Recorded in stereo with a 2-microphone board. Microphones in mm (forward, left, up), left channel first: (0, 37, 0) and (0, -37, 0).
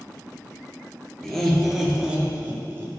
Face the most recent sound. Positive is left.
turn(degrees=-35)  # may be behind; listen again after turning